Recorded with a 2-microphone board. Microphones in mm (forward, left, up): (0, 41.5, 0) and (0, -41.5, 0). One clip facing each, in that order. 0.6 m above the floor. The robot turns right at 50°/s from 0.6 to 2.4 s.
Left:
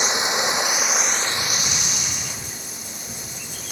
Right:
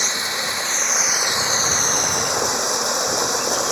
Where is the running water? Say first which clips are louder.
Left 3 dB; 165° left; by 3.7 s 105° right.